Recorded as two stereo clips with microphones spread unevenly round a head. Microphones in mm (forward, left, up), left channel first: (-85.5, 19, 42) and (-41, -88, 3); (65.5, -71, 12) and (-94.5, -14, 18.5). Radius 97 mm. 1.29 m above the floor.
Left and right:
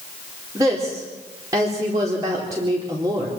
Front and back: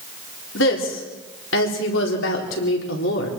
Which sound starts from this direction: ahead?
A woman speaking, at 0.6 s.